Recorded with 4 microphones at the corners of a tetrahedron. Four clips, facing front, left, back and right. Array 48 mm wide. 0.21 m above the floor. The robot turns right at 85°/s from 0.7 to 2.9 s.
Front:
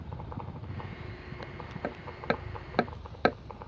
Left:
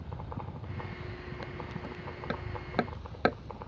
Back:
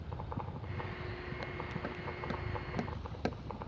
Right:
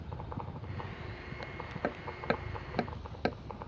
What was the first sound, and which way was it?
A helicopter, 15° left.